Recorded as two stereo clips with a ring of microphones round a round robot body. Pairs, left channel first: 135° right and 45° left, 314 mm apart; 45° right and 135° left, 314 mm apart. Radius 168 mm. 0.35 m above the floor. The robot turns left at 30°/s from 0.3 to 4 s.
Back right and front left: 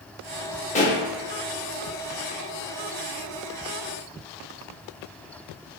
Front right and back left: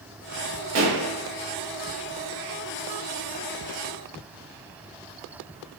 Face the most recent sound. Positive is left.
turn(degrees=70)